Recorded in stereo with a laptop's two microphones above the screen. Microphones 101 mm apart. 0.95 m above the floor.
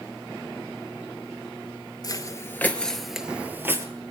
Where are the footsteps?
40° left (ahead or behind), 1.2 m; by 3.9 s 25° right (ahead or behind), 1.4 m.